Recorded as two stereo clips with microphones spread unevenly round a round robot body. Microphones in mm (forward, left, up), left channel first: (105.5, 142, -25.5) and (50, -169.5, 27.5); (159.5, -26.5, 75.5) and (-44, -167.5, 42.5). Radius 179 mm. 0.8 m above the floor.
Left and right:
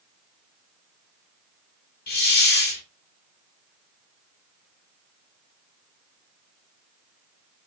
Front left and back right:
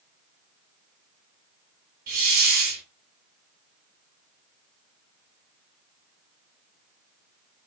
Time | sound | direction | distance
2.1 | a hiss | 145° left | 0.5 m